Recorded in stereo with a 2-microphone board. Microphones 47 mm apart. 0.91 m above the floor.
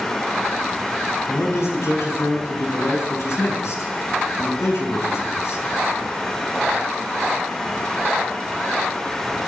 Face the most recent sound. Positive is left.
turn(degrees=85)